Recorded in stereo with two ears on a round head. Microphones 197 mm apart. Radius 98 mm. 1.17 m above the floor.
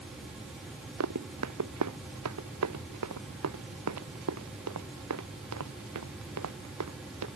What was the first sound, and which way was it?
Running footsteps, 85° right.